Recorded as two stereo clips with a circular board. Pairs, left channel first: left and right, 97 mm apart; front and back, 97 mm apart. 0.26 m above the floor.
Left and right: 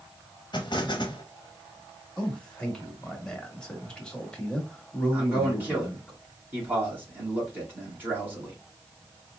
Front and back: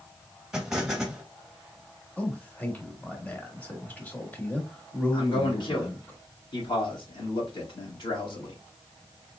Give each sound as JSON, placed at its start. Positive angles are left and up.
{"t": 0.5, "sound": "an explosion", "azimuth_deg": 100, "distance_m": 0.8}
{"t": 2.2, "sound": "a man speaking", "azimuth_deg": 30, "distance_m": 1.0}
{"t": 5.1, "sound": "a man speaking", "azimuth_deg": -20, "distance_m": 2.5}